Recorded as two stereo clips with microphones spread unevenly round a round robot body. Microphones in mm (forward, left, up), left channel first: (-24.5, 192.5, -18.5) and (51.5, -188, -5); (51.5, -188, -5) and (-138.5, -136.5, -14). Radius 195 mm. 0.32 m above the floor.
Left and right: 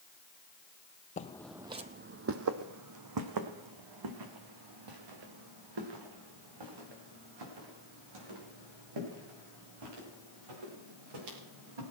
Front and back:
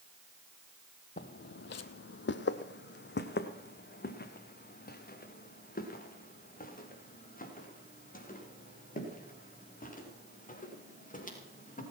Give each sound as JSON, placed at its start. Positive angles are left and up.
{"t": 1.2, "sound": "footsteps", "azimuth_deg": 35, "distance_m": 0.6}